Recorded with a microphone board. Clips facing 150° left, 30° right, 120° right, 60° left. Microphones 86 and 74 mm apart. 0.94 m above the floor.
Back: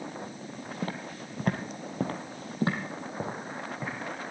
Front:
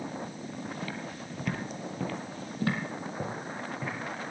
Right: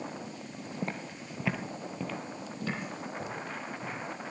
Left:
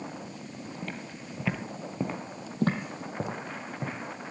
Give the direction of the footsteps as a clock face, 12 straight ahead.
6 o'clock.